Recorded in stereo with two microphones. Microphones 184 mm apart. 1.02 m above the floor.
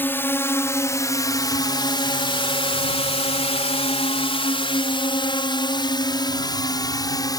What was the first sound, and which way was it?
A drone, 10° left (ahead or behind).